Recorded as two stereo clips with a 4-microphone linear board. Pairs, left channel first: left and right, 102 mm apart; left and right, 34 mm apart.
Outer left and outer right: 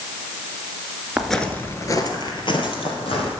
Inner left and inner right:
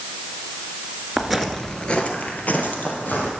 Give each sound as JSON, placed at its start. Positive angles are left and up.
{"t": 1.2, "sound": "footsteps", "side_deg": -5, "distance_m": 1.4}